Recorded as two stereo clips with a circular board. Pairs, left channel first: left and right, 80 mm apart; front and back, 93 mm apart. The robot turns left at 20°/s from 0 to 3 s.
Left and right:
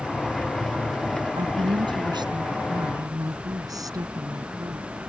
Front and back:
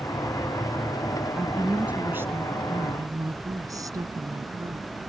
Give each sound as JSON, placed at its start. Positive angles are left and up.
{"t": 1.4, "sound": "a woman speaking", "azimuth_deg": -95}